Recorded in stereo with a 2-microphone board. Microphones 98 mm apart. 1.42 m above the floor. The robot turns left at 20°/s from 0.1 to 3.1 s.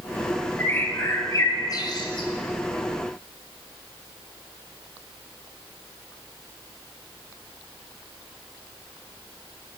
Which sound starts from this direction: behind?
A bird, at 0.6 s.